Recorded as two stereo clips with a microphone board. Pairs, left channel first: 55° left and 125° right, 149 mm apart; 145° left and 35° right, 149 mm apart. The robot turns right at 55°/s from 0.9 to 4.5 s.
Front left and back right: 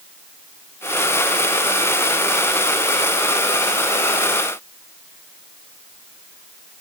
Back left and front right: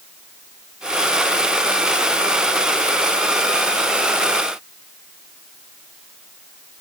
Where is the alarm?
I don't hear an alarm.